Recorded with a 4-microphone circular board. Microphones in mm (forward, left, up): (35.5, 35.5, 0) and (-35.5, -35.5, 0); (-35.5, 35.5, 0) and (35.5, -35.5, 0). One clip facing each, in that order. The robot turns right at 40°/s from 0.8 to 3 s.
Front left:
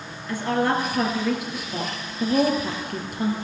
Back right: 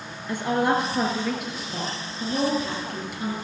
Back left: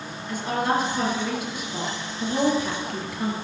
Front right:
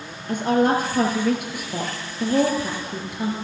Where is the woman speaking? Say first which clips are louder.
Even, front right 5 dB; 70° right, 3.5 m; by 3.4 s 20° left, 3.5 m.